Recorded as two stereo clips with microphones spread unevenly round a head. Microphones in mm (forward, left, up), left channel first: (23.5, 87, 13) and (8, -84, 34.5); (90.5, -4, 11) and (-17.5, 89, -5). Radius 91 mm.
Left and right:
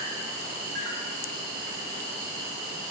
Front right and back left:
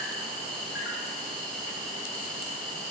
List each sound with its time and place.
0.0 s an insect: 60° right, 4.5 m